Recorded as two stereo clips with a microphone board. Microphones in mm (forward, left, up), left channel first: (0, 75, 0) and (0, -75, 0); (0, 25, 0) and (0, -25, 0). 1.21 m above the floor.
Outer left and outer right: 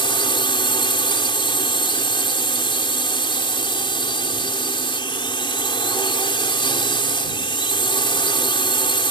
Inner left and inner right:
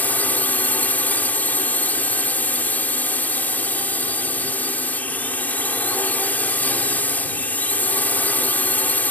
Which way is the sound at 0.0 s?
35° left (ahead or behind).